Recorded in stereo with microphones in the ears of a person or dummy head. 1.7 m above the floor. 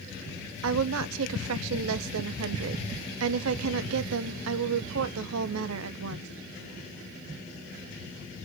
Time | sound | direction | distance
0.6 | a woman speaking | 75° right (ahead or behind) | 0.7 m